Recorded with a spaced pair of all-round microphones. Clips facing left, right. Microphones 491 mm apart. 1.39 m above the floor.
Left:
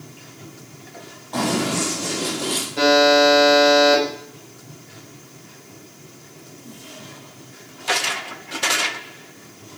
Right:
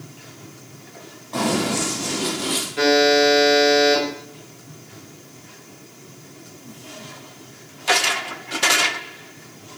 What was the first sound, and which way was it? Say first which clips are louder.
Running footsteps: even; 10° left (ahead or behind).